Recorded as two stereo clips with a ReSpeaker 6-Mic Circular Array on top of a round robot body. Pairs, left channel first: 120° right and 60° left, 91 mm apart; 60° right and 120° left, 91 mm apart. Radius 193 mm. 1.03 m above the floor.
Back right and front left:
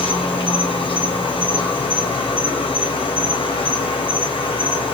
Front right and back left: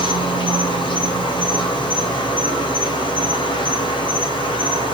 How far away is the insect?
About 4 m.